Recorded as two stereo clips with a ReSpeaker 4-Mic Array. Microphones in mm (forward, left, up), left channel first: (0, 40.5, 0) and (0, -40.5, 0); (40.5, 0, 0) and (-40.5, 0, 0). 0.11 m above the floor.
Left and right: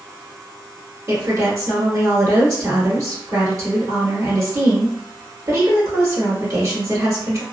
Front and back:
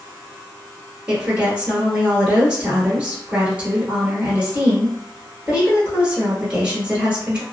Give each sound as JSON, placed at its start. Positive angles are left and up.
{"t": 1.1, "sound": "a woman speaking", "azimuth_deg": -110, "distance_m": 1.5}